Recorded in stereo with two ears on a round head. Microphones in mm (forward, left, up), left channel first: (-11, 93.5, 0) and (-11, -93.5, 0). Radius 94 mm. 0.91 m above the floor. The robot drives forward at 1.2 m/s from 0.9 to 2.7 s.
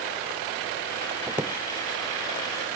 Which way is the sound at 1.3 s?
15° right (ahead or behind).